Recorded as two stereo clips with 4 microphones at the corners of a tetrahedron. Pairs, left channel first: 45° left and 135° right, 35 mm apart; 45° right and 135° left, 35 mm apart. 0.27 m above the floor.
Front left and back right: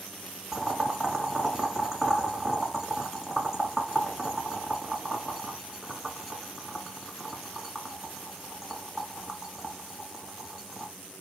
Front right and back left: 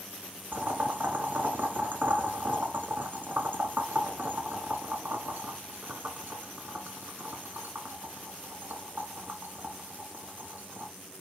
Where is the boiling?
150° left, 1.1 m.